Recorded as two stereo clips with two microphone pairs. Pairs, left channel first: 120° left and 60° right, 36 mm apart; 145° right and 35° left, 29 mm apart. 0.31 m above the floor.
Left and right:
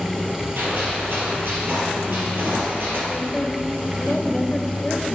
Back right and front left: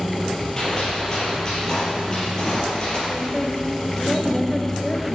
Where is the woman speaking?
155° left, 1.0 m.